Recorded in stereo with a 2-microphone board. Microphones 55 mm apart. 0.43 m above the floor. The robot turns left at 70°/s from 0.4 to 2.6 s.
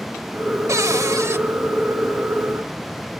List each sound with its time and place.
0.7 s a cupboard door: 70° right, 0.6 m; by 1.4 s 125° right, 0.6 m